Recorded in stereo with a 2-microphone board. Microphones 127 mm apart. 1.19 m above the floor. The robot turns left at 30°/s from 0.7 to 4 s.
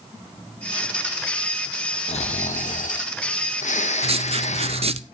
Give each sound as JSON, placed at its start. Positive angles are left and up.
{"t": 2.1, "sound": "snoring", "azimuth_deg": 120, "distance_m": 0.8}
{"t": 4.0, "sound": "writing", "side_deg": -50, "distance_m": 0.6}